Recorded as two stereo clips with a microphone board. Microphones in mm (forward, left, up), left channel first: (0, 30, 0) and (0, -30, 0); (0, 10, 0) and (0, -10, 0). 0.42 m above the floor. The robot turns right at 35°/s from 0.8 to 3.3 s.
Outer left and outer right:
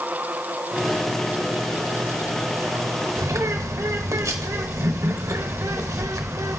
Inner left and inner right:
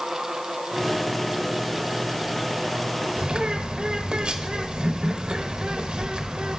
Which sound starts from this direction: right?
A bird, at 3.2 s.